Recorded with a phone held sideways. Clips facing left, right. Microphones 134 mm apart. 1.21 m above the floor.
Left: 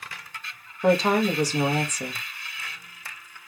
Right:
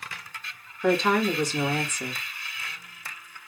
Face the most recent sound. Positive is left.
turn(degrees=35)  # may be behind; listen again after turning